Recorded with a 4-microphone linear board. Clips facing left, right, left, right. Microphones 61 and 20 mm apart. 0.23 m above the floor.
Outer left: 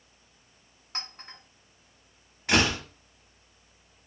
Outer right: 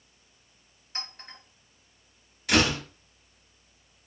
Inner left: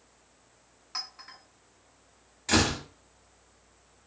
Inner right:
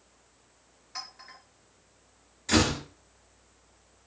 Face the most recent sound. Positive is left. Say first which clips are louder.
# outer right 1 dB, even
turn(degrees=30)  # may be behind; listen again after turning